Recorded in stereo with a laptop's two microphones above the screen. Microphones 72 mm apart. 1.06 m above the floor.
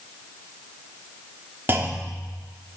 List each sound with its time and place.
1.7 s a clunk: 30° right (ahead or behind), 1.2 m